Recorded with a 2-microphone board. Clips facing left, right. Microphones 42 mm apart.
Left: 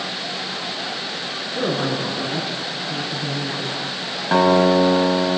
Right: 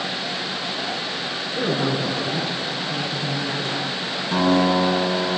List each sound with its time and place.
1.6 s a man speaking: 20° left (ahead or behind), 8.5 m; by 3.8 s 35° left (ahead or behind), 6 m
4.3 s a guitar: 50° left (ahead or behind), 5 m